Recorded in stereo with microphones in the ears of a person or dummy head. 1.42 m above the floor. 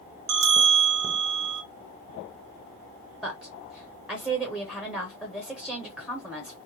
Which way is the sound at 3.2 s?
Centre (ahead or behind).